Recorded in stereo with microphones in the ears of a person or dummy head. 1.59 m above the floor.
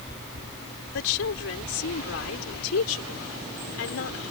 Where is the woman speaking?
80° left; by 4.3 s 85° left.